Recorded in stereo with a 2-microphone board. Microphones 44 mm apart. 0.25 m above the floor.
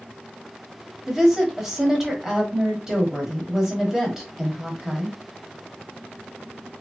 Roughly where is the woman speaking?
Centre.